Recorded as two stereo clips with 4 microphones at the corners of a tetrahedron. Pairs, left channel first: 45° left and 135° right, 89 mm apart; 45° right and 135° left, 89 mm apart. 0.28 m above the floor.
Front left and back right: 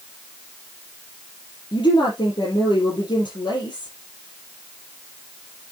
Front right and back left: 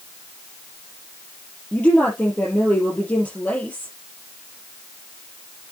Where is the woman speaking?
25° left, 4.5 m.